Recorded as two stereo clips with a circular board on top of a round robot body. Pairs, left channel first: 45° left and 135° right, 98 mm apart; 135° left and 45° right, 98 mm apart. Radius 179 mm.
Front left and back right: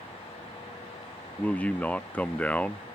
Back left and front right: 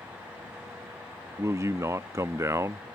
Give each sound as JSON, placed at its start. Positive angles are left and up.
{"t": 1.4, "sound": "a man speaking", "azimuth_deg": -20}